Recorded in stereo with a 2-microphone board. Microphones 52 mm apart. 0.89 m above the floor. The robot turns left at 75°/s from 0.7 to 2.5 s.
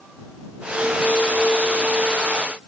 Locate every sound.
Only background noise.